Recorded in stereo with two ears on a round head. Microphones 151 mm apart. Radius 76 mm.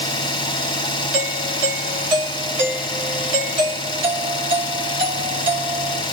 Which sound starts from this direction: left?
An engine running, at 0.0 s.